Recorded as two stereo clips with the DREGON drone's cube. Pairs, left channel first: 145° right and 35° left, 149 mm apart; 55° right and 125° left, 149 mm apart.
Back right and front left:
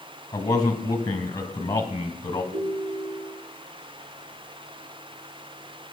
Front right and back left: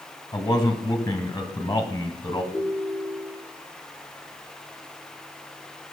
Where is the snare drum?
No snare drum in this recording.